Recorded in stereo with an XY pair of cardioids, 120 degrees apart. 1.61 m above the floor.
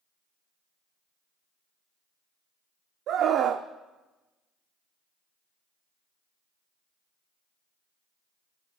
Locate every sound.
3.1 s a scream: 60° right, 0.6 m